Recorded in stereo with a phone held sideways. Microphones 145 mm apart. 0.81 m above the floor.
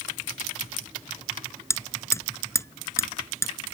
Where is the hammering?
20° left (ahead or behind).